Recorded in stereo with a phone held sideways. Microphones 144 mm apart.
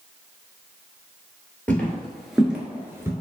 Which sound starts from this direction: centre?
Footsteps, at 1.7 s.